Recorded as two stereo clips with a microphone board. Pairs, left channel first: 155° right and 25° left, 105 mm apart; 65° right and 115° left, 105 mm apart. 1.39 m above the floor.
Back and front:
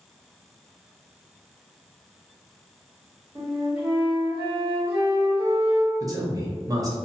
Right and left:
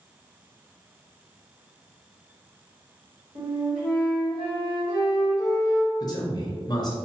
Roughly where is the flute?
Left.